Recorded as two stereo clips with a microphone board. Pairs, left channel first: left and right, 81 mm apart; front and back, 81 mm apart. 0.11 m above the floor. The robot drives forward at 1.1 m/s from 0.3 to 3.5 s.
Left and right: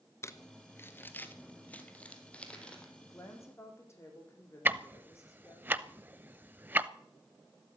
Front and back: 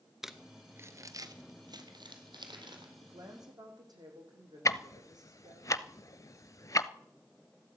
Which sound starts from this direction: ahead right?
Ticking, at 4.7 s.